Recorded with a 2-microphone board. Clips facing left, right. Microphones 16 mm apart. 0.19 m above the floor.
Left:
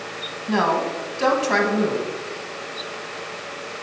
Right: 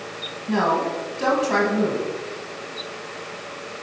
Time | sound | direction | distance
0.5 | a woman speaking | 20° left (ahead or behind) | 1.2 m